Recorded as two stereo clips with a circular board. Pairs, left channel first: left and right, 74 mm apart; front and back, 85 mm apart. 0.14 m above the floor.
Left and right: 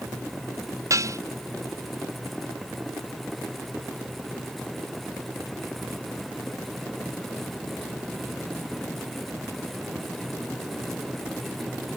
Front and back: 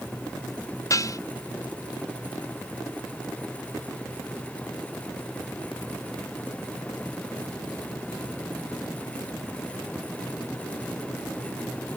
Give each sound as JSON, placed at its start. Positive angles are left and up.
{"t": 0.9, "sound": "dishes clattering", "azimuth_deg": -50}